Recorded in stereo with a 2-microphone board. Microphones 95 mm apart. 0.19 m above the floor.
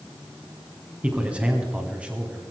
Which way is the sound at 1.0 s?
15° right (ahead or behind).